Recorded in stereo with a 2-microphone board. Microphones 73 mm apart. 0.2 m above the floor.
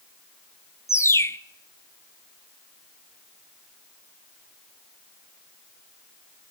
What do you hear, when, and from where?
0.9 s a bird: 40° left (ahead or behind), 0.5 m